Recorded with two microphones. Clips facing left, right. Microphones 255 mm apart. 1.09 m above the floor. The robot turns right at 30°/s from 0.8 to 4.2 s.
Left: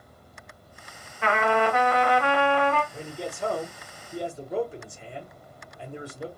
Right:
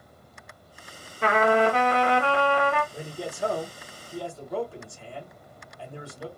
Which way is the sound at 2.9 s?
20° right.